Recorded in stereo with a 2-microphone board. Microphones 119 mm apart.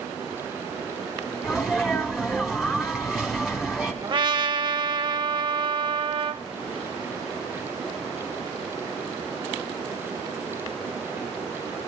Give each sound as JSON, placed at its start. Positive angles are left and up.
{"t": 1.4, "sound": "a sneeze", "side_deg": -5, "distance_m": 2.5}
{"t": 4.0, "sound": "a trumpet", "side_deg": -40, "distance_m": 0.6}